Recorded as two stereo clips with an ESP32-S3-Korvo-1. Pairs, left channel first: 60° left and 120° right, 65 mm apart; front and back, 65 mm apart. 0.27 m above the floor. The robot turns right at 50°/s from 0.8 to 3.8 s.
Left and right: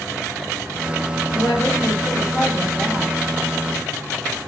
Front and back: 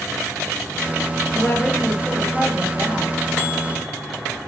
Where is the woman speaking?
60° left, 5.5 m; by 3.2 s 155° left, 5.5 m.